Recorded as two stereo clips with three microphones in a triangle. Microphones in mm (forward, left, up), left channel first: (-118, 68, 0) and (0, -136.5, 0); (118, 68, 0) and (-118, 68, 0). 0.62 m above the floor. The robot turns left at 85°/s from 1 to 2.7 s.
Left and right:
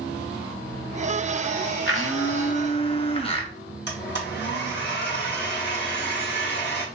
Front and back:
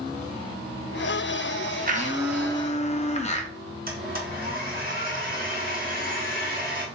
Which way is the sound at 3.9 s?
140° left.